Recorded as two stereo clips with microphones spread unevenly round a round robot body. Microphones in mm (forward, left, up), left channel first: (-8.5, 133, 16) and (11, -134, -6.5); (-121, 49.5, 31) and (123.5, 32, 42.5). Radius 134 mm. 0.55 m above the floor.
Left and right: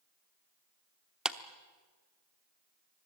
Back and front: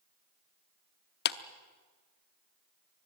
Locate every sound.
1.2 s a clap: 170° right, 0.8 m